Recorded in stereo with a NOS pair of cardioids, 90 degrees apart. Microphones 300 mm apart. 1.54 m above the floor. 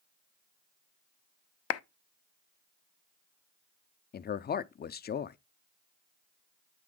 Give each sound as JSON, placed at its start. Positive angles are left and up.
{"t": 1.7, "sound": "a clap", "azimuth_deg": 50, "distance_m": 0.5}
{"t": 4.1, "sound": "a man speaking", "azimuth_deg": 30, "distance_m": 0.5}